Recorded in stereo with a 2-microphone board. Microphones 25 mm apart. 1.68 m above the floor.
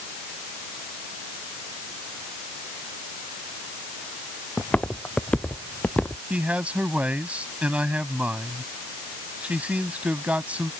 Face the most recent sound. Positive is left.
turn(degrees=-65)  # may be behind; listen again after turning